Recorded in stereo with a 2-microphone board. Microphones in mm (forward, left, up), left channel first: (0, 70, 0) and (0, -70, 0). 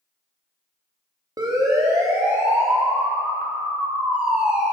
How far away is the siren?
About 2.5 m.